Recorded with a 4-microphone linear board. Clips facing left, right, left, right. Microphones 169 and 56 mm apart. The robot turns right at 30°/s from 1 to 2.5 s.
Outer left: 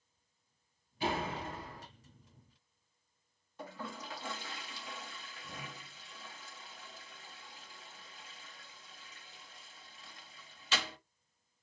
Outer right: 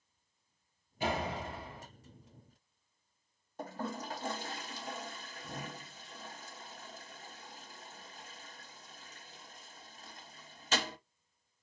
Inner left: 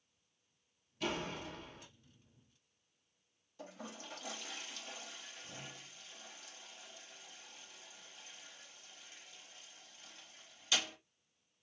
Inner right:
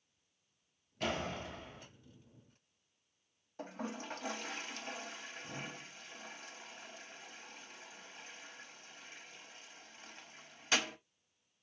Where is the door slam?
45° right (ahead or behind), 1.9 m; by 1.9 s 20° right (ahead or behind), 1.9 m.